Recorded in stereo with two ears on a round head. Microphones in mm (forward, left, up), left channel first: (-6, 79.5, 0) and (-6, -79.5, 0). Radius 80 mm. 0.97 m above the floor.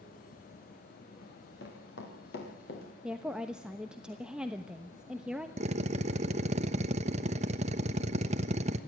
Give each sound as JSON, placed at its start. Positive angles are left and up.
{"t": 1.2, "sound": "running footsteps", "side_deg": 75, "distance_m": 7.5}
{"t": 3.0, "sound": "a woman speaking", "side_deg": -5, "distance_m": 1.0}
{"t": 5.6, "sound": "a drill", "side_deg": -40, "distance_m": 1.2}